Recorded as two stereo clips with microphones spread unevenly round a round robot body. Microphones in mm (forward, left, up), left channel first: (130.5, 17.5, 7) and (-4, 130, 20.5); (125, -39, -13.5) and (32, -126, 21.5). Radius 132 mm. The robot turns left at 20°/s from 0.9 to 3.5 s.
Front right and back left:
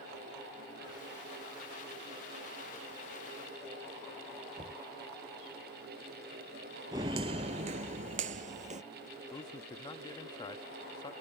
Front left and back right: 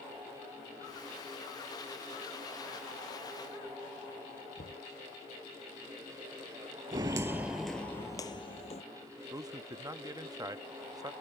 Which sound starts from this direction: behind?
Footsteps, at 6.9 s.